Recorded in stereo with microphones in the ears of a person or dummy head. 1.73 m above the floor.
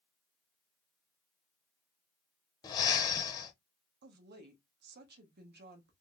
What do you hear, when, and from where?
2.6 s breathing: 20° left (ahead or behind), 0.9 m
4.0 s a woman speaking: 50° right (ahead or behind), 1.0 m